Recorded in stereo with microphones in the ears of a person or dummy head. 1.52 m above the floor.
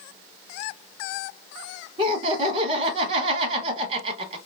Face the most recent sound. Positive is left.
turn(degrees=-40)  # may be behind; listen again after turning